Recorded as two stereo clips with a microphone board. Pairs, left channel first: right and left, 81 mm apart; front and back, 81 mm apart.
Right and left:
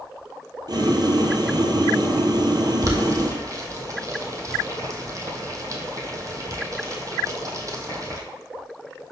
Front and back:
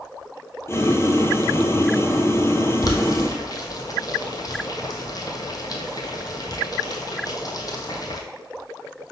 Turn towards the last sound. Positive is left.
turn(degrees=40)